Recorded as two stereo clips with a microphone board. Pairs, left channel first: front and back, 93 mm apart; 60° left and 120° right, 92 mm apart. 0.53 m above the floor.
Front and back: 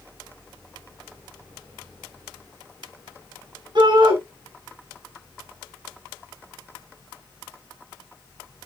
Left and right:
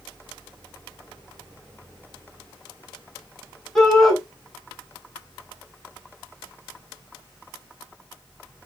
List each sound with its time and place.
3.8 s a shout: 145° left, 6.5 m